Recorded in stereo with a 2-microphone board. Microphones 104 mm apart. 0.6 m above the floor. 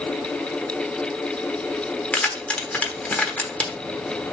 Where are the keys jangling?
15° left (ahead or behind), 1.2 m.